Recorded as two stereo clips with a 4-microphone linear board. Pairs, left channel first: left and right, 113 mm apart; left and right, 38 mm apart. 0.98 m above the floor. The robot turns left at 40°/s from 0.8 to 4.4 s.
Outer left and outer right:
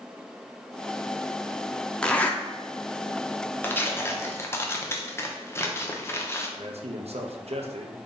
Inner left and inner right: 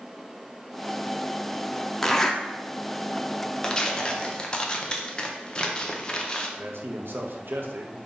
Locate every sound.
2.0 s a zipper: 10° left (ahead or behind), 0.5 m; by 2.4 s 15° left (ahead or behind), 0.5 m
3.6 s tearing paper: 20° left (ahead or behind), 0.6 m; by 6.5 s 25° left (ahead or behind), 0.6 m
6.6 s a man speaking: 70° right (ahead or behind), 0.7 m